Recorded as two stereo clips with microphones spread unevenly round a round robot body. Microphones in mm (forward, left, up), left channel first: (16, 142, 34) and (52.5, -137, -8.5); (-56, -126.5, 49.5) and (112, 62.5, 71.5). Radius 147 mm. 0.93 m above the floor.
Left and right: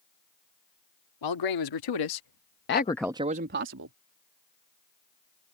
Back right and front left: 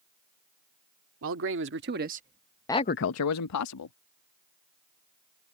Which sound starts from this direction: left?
A man speaking, at 1.2 s.